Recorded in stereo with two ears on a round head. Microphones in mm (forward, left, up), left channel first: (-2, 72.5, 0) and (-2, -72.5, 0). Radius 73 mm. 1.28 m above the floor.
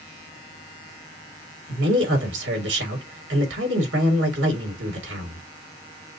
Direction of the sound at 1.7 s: 85° right.